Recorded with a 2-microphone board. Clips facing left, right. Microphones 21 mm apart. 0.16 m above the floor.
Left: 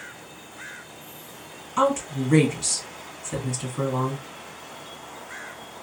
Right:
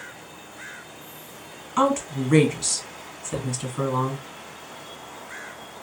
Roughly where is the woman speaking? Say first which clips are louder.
Right 1 dB; centre.